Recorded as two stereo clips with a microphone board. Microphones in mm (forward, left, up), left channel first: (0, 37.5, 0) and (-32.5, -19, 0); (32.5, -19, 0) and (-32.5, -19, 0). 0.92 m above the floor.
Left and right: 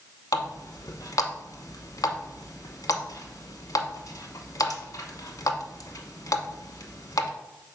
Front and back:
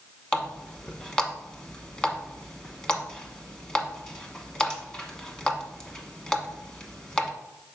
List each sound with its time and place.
0.3 s a running tap: 75° left, 1.0 m